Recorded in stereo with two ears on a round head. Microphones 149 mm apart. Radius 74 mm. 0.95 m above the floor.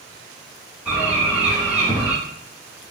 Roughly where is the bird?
Centre.